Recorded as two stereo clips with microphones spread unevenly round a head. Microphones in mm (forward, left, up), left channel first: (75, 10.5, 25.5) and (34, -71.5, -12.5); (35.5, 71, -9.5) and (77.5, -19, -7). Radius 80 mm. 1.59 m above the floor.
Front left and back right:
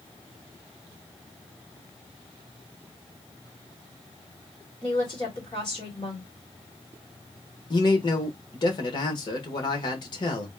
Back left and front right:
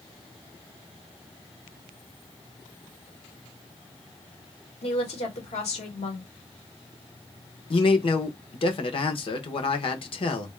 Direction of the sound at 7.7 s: 95° left.